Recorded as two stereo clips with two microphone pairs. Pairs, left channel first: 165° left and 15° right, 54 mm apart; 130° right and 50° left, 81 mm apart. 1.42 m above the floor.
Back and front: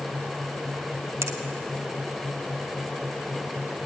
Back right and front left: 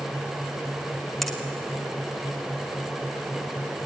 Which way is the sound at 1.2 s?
40° right.